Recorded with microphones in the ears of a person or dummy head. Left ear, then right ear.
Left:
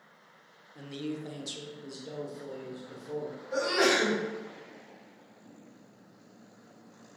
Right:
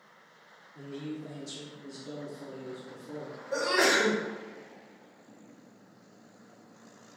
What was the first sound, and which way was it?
A man speaking, 25° left (ahead or behind).